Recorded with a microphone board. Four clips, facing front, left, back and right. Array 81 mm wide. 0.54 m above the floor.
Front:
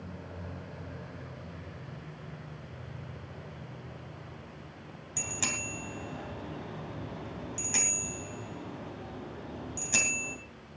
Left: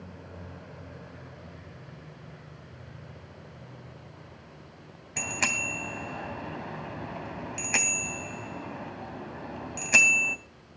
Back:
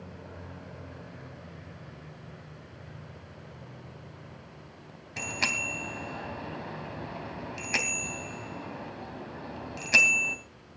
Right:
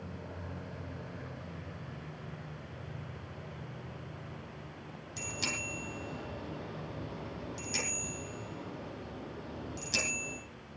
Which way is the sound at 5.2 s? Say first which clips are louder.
Left 8 dB, back 5 dB; 115° left.